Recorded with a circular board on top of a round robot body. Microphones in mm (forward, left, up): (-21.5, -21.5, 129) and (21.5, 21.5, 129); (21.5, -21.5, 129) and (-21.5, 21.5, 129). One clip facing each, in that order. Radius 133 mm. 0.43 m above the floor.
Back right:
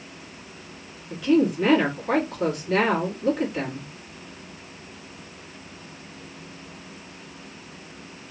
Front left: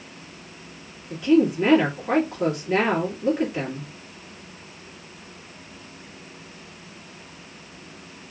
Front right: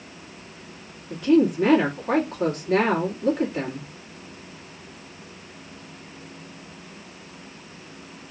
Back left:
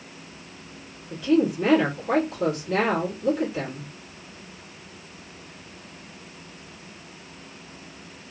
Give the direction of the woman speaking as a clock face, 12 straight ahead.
1 o'clock.